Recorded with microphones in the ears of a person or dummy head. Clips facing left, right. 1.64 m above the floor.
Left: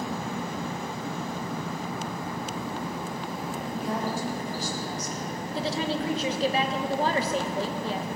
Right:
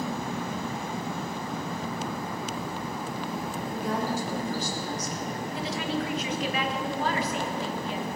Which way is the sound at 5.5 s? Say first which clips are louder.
Left 3 dB; 35° left (ahead or behind).